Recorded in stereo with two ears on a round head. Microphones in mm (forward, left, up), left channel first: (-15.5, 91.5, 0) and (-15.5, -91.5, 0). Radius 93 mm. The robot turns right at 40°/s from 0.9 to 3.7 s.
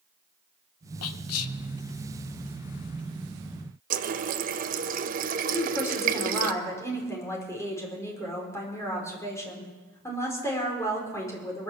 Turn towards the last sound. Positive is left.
turn(degrees=15)  # may be behind; listen again after turning